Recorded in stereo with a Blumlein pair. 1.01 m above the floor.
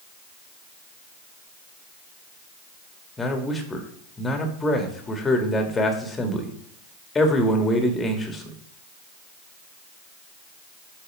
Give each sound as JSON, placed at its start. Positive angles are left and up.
{"t": 3.2, "sound": "a man speaking", "azimuth_deg": 10, "distance_m": 1.7}